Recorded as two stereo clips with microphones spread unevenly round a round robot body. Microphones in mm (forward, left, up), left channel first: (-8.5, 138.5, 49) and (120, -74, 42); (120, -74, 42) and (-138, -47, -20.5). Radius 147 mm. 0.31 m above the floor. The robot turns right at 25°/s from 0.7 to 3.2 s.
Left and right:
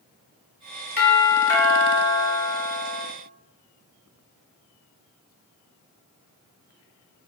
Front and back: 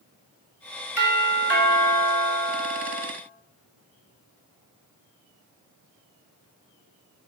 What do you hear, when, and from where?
1.0 s a doorbell: 50° left, 2 m; by 3.1 s 105° left, 2 m